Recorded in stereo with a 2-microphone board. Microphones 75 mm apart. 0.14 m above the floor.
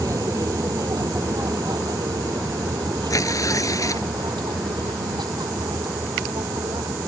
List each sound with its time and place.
0.0 s an aircraft: 50° right (ahead or behind); by 7.1 s 70° right (ahead or behind)
3.1 s tearing paper: 50° left (ahead or behind)